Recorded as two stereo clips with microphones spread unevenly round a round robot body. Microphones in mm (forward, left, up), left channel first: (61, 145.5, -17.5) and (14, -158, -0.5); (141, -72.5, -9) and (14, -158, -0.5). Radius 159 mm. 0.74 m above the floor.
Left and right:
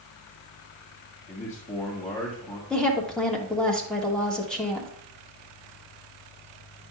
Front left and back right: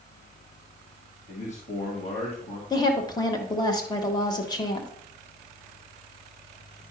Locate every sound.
1.3 s a man speaking: 20° left, 1.4 m
2.7 s a woman speaking: straight ahead, 1.2 m